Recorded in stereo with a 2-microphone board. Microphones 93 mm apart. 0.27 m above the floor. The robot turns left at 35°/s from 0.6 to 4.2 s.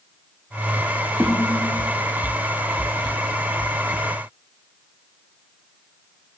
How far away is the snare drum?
About 5 m.